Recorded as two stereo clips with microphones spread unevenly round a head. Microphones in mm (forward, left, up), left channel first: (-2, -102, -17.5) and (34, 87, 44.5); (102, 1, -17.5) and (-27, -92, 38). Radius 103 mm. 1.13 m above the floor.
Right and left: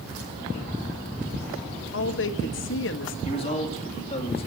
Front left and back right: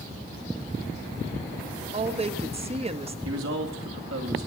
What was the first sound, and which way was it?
A woman speaking, 90° right.